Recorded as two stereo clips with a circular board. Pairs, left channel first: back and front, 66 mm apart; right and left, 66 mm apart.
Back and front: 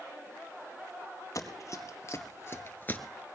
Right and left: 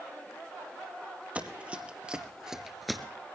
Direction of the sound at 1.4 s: 155° left.